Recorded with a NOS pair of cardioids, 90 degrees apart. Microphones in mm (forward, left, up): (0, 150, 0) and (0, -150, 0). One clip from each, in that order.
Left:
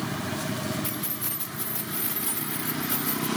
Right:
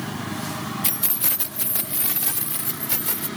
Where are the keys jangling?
70° right; by 3.3 s 40° right.